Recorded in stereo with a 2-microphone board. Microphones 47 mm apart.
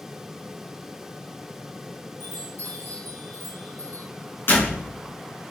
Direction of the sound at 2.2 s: 65° left (ahead or behind).